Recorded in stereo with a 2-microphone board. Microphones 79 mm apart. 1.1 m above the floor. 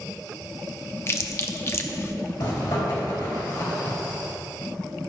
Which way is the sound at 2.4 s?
60° left (ahead or behind).